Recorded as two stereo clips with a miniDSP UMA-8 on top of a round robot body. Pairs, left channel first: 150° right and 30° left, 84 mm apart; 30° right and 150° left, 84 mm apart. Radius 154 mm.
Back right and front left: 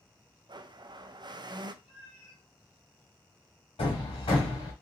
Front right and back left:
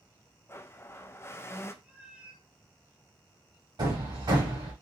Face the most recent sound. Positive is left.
turn(degrees=-170)